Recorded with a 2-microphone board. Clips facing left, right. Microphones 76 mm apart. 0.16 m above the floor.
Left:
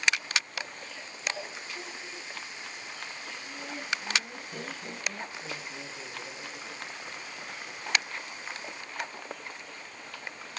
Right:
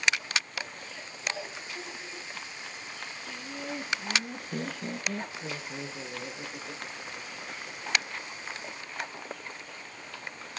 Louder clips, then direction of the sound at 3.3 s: Right 6 dB; 40° right (ahead or behind).